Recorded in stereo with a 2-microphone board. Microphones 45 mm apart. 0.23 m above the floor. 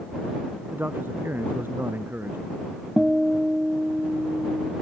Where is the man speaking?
50° right (ahead or behind); by 2.6 s 55° right (ahead or behind).